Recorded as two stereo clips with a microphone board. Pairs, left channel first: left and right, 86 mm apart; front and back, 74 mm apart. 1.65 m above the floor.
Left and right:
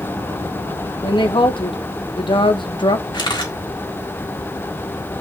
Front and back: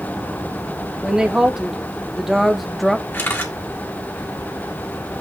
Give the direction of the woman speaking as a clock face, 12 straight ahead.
9 o'clock.